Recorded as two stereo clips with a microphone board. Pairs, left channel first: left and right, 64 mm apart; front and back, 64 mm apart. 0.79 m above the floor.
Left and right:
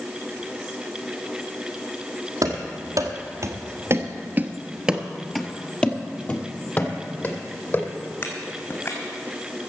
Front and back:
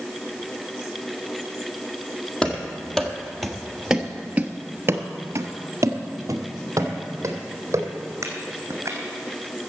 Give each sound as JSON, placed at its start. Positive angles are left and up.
{"t": 2.4, "sound": "running footsteps", "azimuth_deg": -75, "distance_m": 1.7}